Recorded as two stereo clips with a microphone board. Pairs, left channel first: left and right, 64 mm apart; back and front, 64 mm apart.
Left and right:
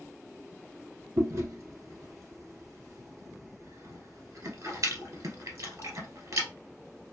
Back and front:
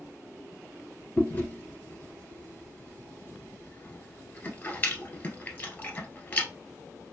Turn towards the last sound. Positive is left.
turn(degrees=-120)